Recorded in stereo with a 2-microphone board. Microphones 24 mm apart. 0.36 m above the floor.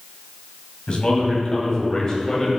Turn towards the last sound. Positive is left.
turn(degrees=25)  # may be behind; listen again after turning